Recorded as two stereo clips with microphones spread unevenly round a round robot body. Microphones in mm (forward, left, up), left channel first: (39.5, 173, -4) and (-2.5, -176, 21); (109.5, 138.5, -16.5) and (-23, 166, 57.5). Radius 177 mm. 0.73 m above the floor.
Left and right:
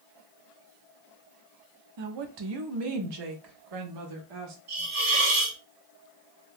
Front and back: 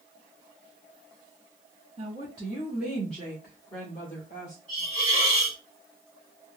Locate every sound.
2.0 s a woman speaking: 120° right, 0.7 m; by 4.6 s 75° right, 1.8 m
4.7 s a hiss: 85° right, 2 m